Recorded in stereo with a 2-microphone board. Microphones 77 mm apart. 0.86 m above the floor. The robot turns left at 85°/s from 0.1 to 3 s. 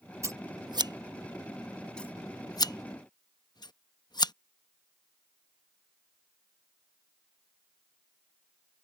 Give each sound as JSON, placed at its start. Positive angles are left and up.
{"t": 0.2, "sound": "scissors", "side_deg": -40}